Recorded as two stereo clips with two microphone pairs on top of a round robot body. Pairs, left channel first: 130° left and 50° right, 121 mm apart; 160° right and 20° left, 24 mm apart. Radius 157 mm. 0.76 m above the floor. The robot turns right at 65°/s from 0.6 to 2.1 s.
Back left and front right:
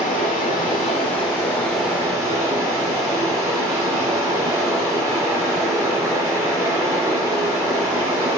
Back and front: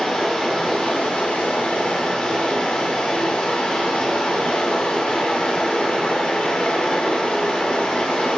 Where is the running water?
140° left, 0.8 m; by 8.4 s 120° right, 0.8 m.